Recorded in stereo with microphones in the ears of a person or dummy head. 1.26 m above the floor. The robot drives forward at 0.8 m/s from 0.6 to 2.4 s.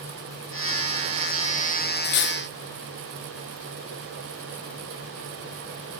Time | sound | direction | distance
2.0 | cutlery clinking | 45° left (ahead or behind) | 0.6 m